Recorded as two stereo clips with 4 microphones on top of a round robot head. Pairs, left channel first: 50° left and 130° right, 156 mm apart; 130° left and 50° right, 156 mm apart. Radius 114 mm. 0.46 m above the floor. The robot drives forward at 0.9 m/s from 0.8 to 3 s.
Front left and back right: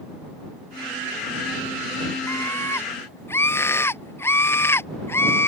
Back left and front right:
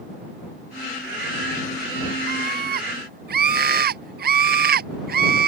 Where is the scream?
25° right.